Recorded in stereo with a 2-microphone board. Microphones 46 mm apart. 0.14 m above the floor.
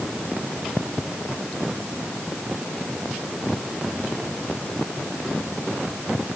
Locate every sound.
Only background noise.